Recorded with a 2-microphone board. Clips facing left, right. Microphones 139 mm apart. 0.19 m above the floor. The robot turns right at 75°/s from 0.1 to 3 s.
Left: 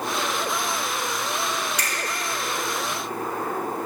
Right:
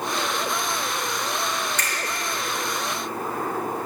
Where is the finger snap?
10° left (ahead or behind), 2.5 m; by 1.9 s 5° left (ahead or behind), 2.5 m.